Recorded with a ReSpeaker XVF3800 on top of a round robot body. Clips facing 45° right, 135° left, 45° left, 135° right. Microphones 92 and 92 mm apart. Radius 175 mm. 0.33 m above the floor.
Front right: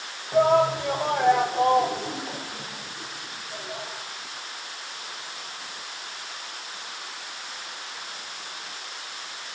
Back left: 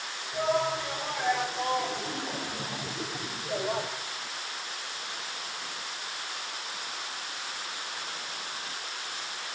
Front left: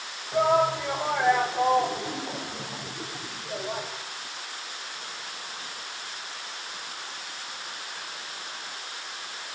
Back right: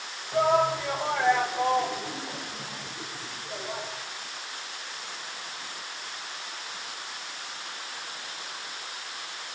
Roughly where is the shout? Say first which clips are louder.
Front right 9 dB, front left 1 dB; ahead right.